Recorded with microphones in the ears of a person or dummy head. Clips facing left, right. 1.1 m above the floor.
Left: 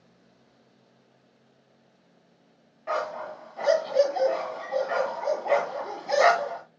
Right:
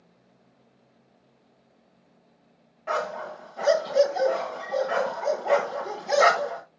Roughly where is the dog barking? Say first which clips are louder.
Right 1 dB; centre.